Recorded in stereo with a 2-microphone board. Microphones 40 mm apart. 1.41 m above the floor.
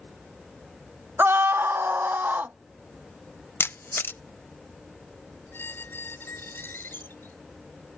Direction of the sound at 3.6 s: 75° left (ahead or behind).